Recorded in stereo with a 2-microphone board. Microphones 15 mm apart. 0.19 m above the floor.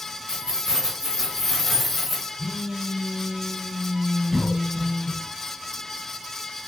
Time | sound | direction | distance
0.3 | keys jangling | 45° right (ahead or behind) | 1.6 m
2.4 | a phone buzzing | 30° right (ahead or behind) | 1.1 m
4.3 | a cough | 30° left (ahead or behind) | 1.3 m